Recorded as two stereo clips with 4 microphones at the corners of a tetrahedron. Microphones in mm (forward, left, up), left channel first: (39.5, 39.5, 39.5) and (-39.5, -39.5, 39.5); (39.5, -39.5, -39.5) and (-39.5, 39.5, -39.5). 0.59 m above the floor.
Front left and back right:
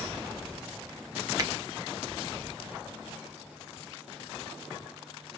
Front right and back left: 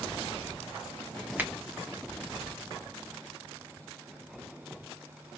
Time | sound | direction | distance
1.4 | a finger snap | 165° right | 0.8 m